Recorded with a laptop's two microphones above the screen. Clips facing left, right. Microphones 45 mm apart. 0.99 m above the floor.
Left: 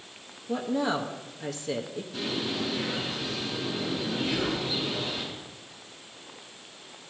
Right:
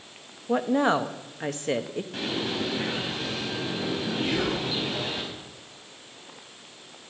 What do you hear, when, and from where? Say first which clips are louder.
0.5 s a woman speaking: right 5 dB; 45° right (ahead or behind), 0.8 m
2.1 s a bird: right 1 dB; 60° right (ahead or behind), 5 m
4.2 s whispering: right 2 dB; 45° right (ahead or behind), 2.5 m